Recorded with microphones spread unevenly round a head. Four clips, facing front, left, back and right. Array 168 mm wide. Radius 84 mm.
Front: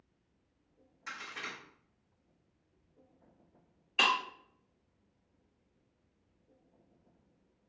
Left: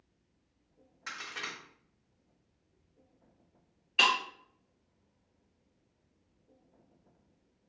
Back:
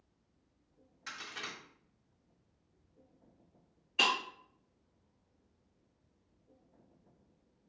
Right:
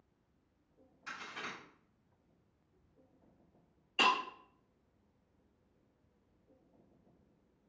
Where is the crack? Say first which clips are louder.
Left 3 dB, front 2 dB; 85° left, 1.7 m.